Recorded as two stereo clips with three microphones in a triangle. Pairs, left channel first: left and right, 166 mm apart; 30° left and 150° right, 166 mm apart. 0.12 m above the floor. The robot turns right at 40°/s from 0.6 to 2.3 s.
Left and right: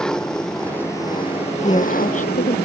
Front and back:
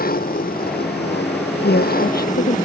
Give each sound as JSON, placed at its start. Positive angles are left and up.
{"t": 0.0, "sound": "an engine running", "azimuth_deg": 5}
{"t": 1.6, "sound": "a woman speaking", "azimuth_deg": 30}